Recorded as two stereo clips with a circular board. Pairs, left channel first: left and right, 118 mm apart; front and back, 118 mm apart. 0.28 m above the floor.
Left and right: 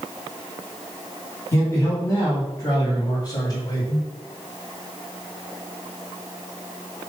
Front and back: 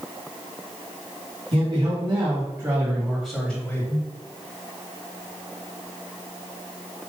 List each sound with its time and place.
1.5 s a man speaking: 150° left, 2.5 m; by 4.1 s 50° left, 1.8 m